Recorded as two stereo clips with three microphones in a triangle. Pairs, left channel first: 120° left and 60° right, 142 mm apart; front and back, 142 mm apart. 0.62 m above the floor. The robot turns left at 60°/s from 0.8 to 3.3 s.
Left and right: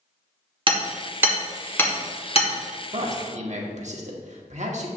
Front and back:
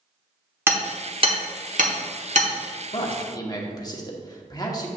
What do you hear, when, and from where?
0.7 s hammering: 105° right, 1.1 m; by 2.5 s 150° left, 1.1 m
2.9 s a man speaking: 35° right, 1.1 m; by 4.9 s 60° right, 1.1 m